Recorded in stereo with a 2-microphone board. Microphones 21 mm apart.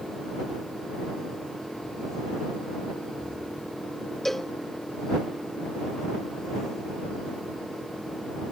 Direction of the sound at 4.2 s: 15° left (ahead or behind).